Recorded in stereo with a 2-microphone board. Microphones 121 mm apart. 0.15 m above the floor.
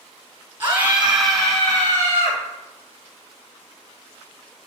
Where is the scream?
20° right (ahead or behind), 1.0 m; by 2.4 s 25° left (ahead or behind), 1.2 m.